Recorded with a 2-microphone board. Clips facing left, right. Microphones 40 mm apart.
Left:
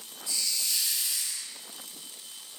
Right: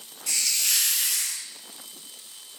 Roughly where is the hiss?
Right.